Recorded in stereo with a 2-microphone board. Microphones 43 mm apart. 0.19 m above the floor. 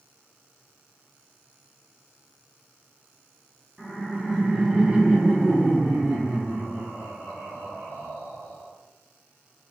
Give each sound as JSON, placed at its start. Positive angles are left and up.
{"t": 3.8, "sound": "laughter", "side_deg": -10, "distance_m": 1.5}